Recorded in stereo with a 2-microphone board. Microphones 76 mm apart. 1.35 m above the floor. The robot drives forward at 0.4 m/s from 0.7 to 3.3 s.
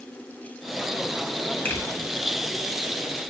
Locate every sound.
1.6 s a finger snap: 25° left (ahead or behind), 1.3 m; by 1.8 s 20° left (ahead or behind), 1.4 m